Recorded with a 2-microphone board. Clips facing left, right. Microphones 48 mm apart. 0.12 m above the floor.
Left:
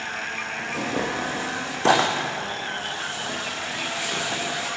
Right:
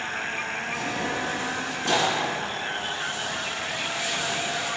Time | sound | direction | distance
0.6 | tearing paper | 85° left | 5 m